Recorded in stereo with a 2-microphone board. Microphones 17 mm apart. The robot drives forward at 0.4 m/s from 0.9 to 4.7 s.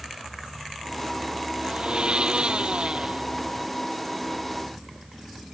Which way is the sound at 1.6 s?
65° right (ahead or behind).